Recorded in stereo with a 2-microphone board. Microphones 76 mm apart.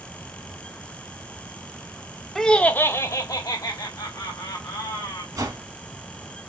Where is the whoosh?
45° right (ahead or behind), 2.0 m.